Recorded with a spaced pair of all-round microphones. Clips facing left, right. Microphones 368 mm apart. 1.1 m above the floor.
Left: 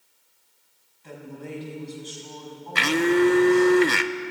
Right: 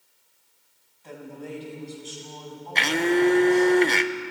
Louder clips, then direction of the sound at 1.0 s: Even; 20° left (ahead or behind).